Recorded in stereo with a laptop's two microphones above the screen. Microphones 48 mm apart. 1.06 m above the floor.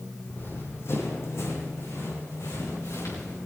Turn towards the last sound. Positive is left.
turn(degrees=80)